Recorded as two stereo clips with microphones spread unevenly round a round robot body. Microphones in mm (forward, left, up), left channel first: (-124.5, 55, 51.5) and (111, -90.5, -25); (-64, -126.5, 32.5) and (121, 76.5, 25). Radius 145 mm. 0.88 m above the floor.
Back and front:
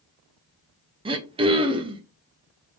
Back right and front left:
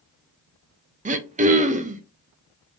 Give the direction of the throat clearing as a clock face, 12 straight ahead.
12 o'clock.